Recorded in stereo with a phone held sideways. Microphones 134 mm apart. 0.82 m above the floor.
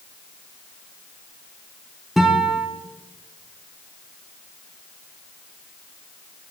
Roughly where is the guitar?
Centre.